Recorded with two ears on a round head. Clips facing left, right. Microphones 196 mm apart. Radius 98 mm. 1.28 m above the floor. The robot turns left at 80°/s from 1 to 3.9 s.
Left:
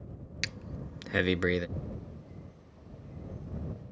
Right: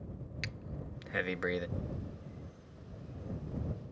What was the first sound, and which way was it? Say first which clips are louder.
Breathing: left 5 dB; 60° left (ahead or behind).